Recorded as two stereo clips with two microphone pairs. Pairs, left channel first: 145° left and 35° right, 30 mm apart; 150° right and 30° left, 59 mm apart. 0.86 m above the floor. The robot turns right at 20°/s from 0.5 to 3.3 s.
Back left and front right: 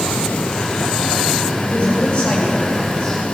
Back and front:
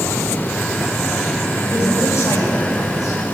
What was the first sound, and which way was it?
A man speaking, 170° right.